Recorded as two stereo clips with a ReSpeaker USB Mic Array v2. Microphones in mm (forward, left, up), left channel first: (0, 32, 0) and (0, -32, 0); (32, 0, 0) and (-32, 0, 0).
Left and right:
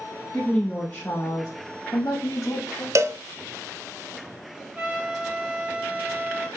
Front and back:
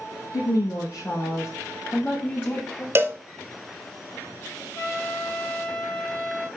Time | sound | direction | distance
0.3 | a woman speaking | 15° left | 4.5 m
3.0 | a cowbell | 130° right | 0.8 m
4.8 | a trumpet | 30° right | 2.5 m